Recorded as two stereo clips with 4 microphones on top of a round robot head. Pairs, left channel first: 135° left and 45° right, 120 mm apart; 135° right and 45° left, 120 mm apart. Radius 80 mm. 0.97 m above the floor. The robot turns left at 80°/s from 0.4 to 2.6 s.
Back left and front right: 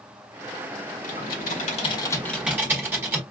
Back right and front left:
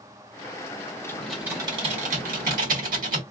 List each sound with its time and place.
1.0 s typing on a keyboard: 155° left, 1.6 m; by 3.2 s 30° left, 1.6 m